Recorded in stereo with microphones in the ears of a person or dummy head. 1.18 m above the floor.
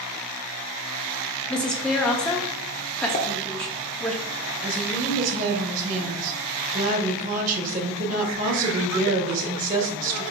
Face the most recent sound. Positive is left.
turn(degrees=-45)  # may be behind; listen again after turning